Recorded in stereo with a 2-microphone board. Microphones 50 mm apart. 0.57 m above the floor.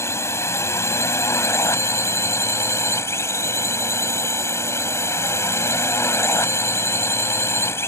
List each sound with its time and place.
0.0 s a drone: 65° left (ahead or behind); by 7.9 s 60° left (ahead or behind)